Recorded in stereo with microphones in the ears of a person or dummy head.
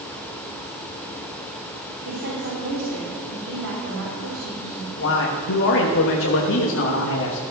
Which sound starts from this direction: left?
A man speaking, at 5.0 s.